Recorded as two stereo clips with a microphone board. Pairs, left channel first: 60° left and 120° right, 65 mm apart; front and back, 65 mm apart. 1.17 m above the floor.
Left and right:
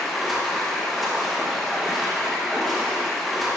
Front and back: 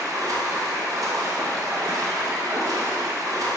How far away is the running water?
About 1.1 m.